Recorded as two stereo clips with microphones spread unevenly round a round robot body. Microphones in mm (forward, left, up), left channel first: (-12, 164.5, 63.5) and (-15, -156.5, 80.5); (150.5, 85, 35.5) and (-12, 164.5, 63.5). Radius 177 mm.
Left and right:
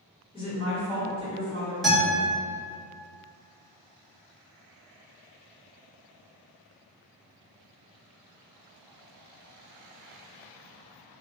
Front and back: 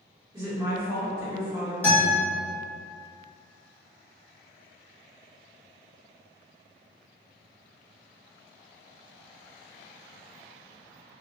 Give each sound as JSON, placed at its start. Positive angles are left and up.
{"t": 0.3, "sound": "a woman speaking", "azimuth_deg": 110, "distance_m": 1.1}
{"t": 1.8, "sound": "a guitar", "azimuth_deg": 10, "distance_m": 1.2}